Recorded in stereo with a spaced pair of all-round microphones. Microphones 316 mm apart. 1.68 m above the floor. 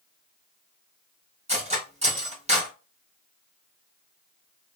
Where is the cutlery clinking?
20° right (ahead or behind), 1.1 m.